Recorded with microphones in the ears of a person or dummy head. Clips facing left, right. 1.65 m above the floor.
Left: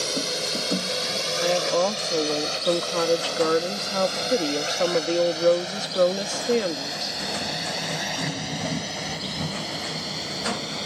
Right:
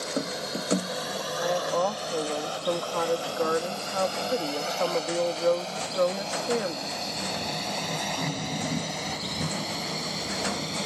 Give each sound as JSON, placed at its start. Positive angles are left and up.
{"t": 0.0, "sound": "a drone", "side_deg": 45}
{"t": 1.4, "sound": "a woman speaking", "side_deg": 45}